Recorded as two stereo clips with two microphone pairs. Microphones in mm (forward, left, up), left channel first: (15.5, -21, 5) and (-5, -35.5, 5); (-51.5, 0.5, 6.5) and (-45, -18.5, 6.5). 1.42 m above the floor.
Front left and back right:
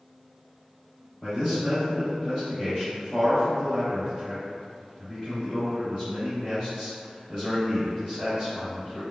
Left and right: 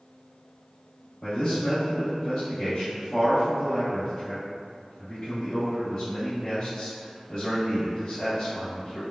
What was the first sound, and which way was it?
A man speaking, 115° left.